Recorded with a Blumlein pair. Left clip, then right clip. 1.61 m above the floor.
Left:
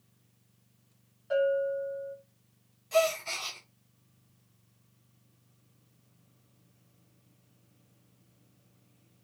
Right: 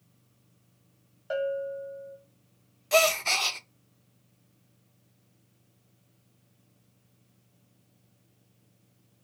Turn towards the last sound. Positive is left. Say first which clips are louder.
# right 5 dB
turn(degrees=-55)